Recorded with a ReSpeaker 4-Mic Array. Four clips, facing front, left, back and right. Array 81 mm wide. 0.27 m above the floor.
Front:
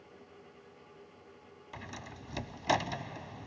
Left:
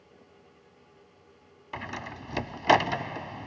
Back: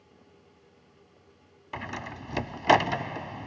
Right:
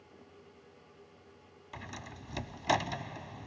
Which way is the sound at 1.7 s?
145° left.